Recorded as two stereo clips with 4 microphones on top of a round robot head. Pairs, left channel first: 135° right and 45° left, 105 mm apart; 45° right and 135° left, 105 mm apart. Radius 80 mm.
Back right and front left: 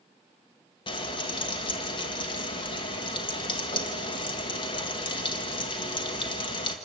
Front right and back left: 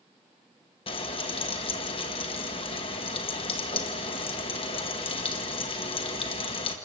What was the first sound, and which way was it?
Frying, 90° right.